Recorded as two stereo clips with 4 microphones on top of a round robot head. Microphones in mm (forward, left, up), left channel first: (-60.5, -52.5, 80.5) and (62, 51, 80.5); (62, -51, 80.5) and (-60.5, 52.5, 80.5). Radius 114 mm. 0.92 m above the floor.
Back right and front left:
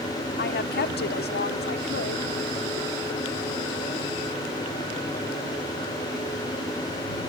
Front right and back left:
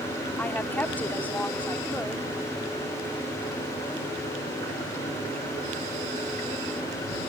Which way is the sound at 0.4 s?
120° right.